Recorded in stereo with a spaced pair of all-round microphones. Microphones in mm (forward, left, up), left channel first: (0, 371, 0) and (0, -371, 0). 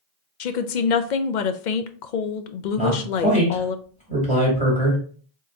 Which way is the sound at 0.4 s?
80° left.